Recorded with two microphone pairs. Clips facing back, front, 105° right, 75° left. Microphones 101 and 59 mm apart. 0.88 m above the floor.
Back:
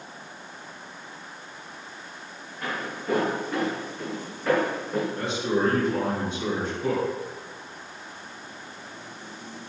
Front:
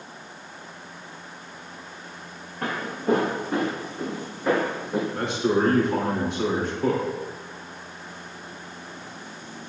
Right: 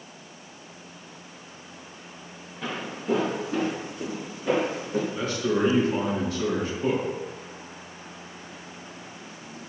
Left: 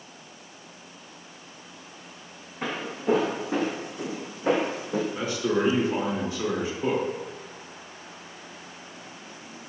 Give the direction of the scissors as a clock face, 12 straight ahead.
No scissors in this recording.